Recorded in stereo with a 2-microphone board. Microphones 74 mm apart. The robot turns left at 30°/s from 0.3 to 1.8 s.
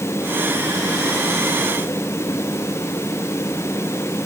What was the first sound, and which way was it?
Only background noise.